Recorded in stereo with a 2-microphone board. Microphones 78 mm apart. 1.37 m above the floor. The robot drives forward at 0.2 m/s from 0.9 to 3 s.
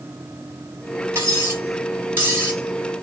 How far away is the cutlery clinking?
About 3 m.